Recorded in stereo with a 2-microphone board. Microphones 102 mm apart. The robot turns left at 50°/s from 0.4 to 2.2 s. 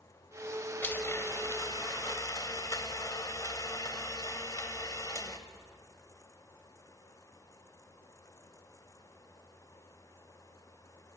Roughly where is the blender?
Behind left.